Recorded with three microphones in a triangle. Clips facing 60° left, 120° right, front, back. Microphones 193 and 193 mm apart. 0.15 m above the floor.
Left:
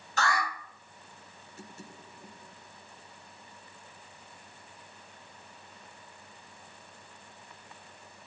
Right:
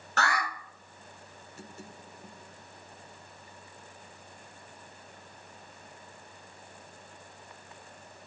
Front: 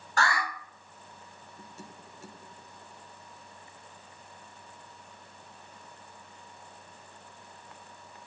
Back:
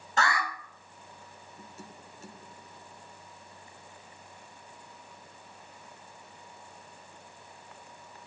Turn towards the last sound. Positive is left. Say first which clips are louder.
# even, even
turn(degrees=-115)